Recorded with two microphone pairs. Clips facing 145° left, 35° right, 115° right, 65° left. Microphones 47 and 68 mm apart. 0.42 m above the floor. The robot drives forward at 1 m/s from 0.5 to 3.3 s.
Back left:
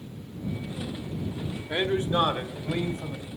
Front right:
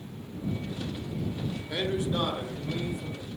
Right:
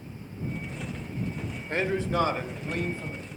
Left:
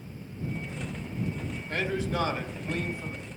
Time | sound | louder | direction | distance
1.7 | a man speaking | back left 4 dB, right 3 dB | 160° right | 1.0 m